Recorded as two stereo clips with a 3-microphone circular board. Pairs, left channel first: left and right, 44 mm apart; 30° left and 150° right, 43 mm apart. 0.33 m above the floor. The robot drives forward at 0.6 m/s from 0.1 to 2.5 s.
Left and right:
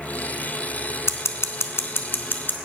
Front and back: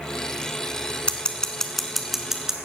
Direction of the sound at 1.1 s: 90° left.